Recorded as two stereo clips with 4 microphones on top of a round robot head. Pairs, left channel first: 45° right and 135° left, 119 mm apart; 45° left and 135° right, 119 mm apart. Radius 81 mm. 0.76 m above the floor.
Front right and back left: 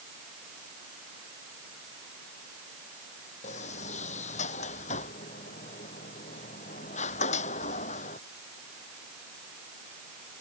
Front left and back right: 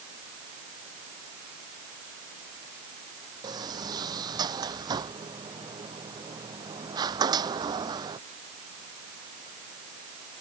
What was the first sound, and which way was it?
A sliding door, 75° right.